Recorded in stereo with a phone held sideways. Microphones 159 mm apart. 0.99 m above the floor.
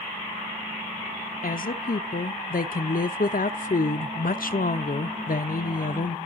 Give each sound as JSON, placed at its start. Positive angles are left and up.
{"t": 1.4, "sound": "a woman speaking", "side_deg": 65, "distance_m": 0.6}